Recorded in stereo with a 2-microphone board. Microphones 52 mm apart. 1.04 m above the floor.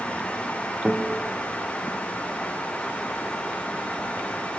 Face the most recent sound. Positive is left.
turn(degrees=-15)  # may be behind; listen again after turning